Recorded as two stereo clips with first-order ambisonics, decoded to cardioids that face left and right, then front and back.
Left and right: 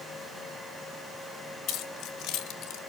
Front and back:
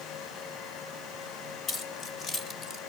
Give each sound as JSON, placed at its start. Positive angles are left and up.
{"t": 1.7, "sound": "keys jangling", "azimuth_deg": 55, "distance_m": 1.9}